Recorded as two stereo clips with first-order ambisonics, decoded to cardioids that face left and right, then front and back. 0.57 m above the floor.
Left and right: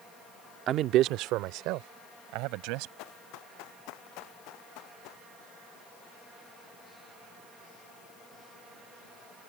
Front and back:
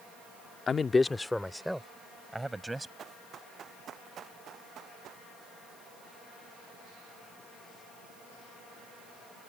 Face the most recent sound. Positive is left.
turn(degrees=125)